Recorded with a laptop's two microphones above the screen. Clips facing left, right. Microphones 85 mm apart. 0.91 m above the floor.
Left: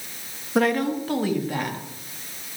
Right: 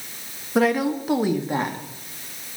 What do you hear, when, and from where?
0.6 s a woman speaking: centre (ahead or behind), 1.3 m; by 1.8 s 25° right (ahead or behind), 2 m